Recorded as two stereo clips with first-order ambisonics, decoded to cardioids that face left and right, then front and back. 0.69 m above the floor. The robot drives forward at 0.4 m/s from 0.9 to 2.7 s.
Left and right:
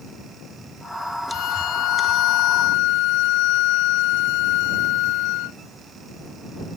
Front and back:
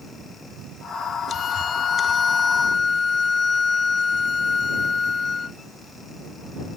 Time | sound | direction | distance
1.3 | a violin | 60° left | ?